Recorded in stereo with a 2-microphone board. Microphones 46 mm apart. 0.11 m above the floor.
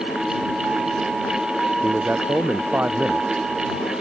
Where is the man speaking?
40° right (ahead or behind).